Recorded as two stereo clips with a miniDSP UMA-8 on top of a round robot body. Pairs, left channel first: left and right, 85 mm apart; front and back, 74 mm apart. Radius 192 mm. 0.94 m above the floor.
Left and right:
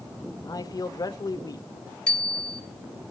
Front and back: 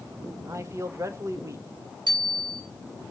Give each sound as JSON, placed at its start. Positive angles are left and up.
{"t": 0.4, "sound": "a man speaking", "azimuth_deg": 130, "distance_m": 2.0}
{"t": 2.1, "sound": "a bicycle bell", "azimuth_deg": 170, "distance_m": 6.5}